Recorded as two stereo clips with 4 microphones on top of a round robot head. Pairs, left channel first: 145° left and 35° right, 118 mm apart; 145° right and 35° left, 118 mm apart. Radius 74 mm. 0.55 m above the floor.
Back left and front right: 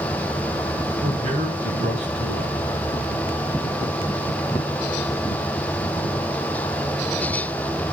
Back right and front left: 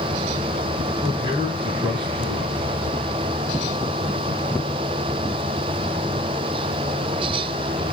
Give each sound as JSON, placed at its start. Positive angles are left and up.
{"t": 1.0, "sound": "a man speaking", "azimuth_deg": -15, "distance_m": 6.5}